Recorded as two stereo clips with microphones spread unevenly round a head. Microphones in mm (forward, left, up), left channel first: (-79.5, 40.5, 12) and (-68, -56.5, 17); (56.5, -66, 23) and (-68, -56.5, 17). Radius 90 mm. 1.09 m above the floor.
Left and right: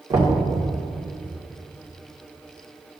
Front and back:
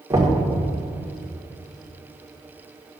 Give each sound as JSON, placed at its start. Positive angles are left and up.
{"t": 0.1, "sound": "knocking", "azimuth_deg": -120, "distance_m": 2.0}